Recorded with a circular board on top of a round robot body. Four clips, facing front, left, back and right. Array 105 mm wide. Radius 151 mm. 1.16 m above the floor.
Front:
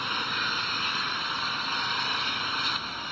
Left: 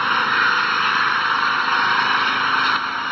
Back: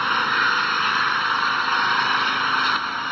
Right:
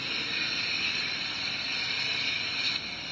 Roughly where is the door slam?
I don't hear a door slam.